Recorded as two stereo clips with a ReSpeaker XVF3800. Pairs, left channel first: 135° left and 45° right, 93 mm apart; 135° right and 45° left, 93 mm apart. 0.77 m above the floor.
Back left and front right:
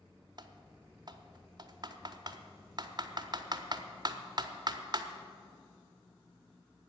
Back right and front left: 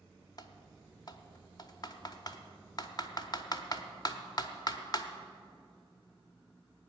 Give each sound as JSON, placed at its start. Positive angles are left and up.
{"t": 0.4, "sound": "typing on a keyboard", "azimuth_deg": -90, "distance_m": 0.9}